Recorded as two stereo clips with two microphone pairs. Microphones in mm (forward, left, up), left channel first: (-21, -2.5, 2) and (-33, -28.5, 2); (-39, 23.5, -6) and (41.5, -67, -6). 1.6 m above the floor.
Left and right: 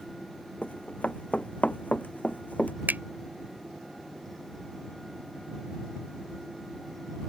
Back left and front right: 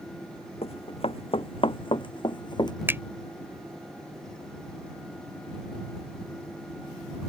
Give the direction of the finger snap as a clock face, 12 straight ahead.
4 o'clock.